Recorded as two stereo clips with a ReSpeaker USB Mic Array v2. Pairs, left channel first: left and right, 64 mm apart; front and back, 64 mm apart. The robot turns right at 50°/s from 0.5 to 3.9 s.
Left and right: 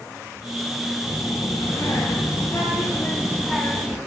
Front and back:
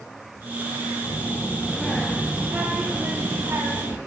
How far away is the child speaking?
About 0.6 m.